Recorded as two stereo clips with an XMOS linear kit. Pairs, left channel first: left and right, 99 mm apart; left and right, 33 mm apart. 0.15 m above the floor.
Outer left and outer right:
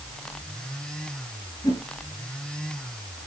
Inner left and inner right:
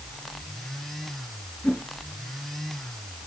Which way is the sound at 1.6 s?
45° left (ahead or behind).